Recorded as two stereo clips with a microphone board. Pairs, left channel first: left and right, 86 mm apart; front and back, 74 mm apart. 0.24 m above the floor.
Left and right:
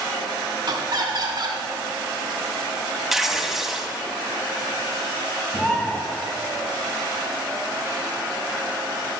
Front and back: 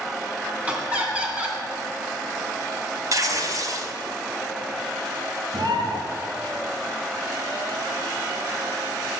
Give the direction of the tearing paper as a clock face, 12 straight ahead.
6 o'clock.